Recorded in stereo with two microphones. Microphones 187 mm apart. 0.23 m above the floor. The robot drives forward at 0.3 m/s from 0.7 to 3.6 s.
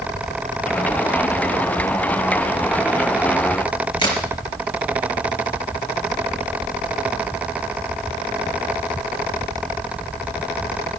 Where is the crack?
25° left (ahead or behind), 5 m.